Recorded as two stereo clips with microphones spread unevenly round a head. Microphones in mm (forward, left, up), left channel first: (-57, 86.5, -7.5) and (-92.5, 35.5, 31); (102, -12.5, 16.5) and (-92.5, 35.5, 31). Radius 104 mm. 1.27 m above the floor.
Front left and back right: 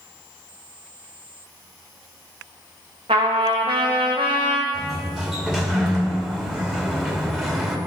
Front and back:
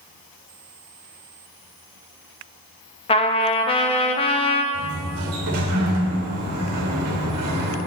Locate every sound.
3.1 s a trumpet: 80° right, 0.8 m
4.7 s a sliding door: 155° left, 2 m